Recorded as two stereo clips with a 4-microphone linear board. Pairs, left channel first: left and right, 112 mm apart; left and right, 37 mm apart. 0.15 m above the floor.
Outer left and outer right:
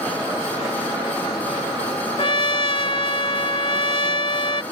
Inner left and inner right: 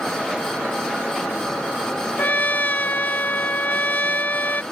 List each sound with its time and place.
2.2 s a trumpet: 50° left (ahead or behind)